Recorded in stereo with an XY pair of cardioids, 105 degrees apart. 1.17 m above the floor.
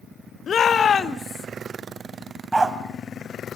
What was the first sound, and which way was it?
A shout, 45° left.